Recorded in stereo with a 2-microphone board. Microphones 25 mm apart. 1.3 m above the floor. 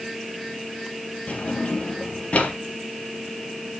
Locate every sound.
1.3 s a drawer: 65° left (ahead or behind), 1.7 m